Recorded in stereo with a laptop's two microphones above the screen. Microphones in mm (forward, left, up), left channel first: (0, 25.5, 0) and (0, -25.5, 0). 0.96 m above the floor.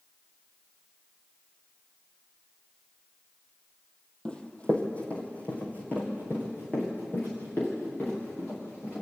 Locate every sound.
4.2 s running footsteps: 20° left (ahead or behind), 1.9 m; by 9.0 s 40° left (ahead or behind), 8 m